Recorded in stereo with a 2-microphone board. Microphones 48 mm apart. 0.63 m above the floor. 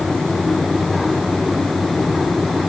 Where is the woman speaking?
I don't hear a woman speaking.